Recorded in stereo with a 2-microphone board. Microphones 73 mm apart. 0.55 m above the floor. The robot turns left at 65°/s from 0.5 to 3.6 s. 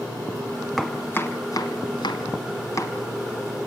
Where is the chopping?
5° left (ahead or behind), 2 m; by 3.0 s 35° left (ahead or behind), 2 m.